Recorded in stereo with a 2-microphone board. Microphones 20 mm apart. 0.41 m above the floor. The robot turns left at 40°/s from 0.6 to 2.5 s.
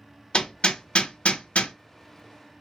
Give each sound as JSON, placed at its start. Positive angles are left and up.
{"t": 0.3, "sound": "hammering", "side_deg": 45, "distance_m": 0.5}